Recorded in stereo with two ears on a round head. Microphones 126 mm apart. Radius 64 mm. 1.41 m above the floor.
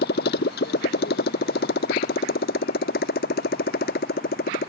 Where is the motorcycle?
85° left; by 4.7 s 80° left.